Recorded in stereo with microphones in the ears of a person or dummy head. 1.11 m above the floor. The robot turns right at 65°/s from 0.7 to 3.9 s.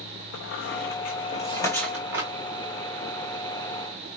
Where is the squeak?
60° left (ahead or behind), 1.2 m; by 2.3 s 25° right (ahead or behind), 1.2 m.